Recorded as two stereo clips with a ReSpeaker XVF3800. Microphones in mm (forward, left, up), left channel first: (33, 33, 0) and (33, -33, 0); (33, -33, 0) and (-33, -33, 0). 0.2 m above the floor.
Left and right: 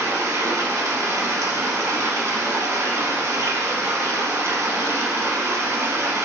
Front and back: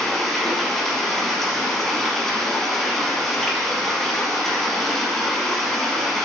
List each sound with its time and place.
0.0 s running water: 80° right, 1.0 m